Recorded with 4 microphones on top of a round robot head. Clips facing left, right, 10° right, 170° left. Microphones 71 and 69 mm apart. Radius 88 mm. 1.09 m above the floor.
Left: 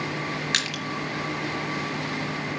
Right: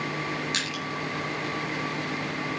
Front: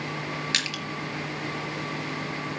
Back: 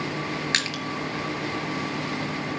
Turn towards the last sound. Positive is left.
turn(degrees=120)